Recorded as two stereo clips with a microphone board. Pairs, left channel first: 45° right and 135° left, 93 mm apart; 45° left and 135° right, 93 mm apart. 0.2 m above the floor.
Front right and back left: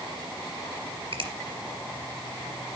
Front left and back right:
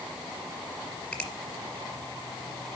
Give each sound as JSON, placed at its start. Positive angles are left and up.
{"t": 1.1, "sound": "a finger snap", "azimuth_deg": 125, "distance_m": 3.0}